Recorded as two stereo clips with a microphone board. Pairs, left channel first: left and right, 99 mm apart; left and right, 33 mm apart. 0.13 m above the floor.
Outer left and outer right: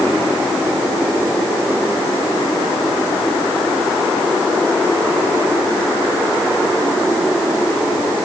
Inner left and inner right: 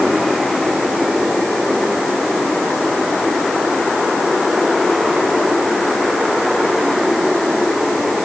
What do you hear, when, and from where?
Only background noise.